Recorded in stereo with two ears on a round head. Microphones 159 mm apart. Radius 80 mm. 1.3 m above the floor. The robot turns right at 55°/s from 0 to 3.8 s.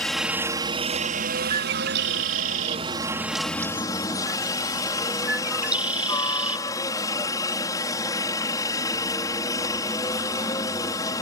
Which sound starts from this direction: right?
A bird, at 1.5 s.